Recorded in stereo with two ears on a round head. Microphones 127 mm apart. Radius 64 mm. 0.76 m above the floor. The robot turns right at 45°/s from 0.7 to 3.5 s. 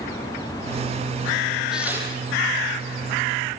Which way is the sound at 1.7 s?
5° right (ahead or behind).